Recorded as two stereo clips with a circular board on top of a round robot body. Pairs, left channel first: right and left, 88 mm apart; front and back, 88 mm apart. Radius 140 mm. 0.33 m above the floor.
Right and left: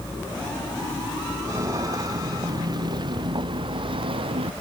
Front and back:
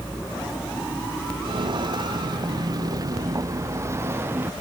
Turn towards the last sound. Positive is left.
turn(degrees=110)